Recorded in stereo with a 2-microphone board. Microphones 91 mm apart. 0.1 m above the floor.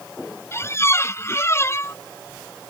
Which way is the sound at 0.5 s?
30° left (ahead or behind).